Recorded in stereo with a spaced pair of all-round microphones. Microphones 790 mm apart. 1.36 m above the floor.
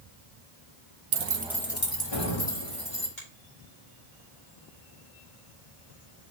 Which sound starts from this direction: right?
Keys jangling, at 1.1 s.